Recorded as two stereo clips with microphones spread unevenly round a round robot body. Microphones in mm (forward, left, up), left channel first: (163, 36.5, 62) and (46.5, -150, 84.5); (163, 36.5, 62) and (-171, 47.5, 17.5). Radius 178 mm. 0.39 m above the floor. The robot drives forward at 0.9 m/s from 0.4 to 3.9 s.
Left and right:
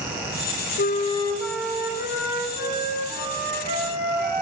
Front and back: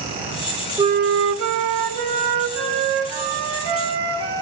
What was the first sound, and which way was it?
A flute, 100° left.